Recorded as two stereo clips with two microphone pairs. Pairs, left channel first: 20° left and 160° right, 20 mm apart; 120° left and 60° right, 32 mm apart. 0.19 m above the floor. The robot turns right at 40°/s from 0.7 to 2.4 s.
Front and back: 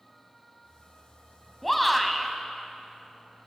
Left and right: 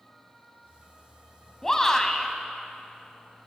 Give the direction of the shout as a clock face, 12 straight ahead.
9 o'clock.